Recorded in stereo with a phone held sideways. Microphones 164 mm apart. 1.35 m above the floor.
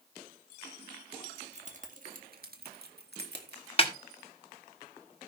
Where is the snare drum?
35° left (ahead or behind), 1.3 m.